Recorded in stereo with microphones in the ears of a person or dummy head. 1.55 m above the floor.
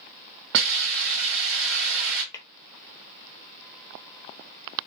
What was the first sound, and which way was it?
A hiss, 60° right (ahead or behind).